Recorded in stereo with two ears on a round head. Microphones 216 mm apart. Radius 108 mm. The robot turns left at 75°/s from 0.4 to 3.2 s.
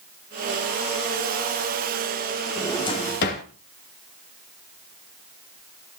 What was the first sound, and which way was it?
A drawer, centre (ahead or behind).